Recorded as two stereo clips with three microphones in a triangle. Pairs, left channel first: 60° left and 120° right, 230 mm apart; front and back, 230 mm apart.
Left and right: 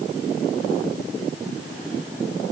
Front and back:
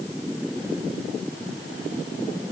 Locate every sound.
Only background noise.